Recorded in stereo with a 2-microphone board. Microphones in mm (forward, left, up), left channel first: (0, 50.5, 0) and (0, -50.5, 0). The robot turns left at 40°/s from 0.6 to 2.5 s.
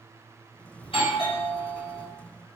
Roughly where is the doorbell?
Left.